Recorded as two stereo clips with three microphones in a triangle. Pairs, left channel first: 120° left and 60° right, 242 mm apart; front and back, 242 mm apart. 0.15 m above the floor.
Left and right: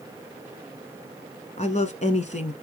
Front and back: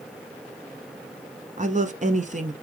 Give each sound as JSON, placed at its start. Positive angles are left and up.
{"t": 1.6, "sound": "a woman speaking", "azimuth_deg": 155, "distance_m": 1.2}